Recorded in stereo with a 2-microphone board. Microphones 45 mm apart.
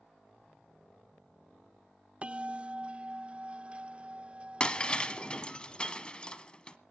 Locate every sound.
2.2 s a bell: 30° right (ahead or behind), 0.5 m
4.6 s breaking glass: 20° left (ahead or behind), 1.2 m